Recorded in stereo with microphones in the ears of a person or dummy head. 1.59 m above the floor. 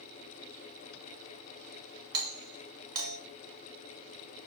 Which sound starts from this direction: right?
A doorbell, at 2.1 s.